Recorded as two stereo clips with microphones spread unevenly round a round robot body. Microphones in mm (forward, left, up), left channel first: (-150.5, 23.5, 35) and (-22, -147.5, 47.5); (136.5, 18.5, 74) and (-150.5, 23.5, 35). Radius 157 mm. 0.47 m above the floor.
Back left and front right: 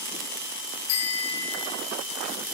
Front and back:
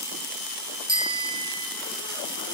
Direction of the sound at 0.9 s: 105° left.